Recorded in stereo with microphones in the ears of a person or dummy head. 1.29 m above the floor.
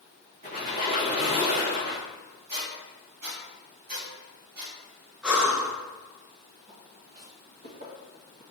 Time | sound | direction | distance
0.4 | a squeak | 45° right (ahead or behind) | 1.1 m
2.5 | a squeak | 55° right (ahead or behind) | 2 m
5.2 | breathing | 5° right (ahead or behind) | 0.8 m
6.7 | footsteps | 40° right (ahead or behind) | 1.7 m